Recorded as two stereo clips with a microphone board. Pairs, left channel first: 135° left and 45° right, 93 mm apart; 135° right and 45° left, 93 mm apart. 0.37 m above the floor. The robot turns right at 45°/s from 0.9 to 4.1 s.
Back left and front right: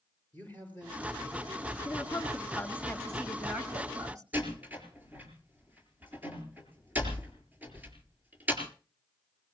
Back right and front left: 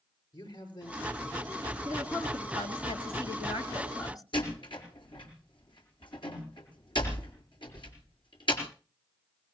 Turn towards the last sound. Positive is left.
turn(degrees=-115)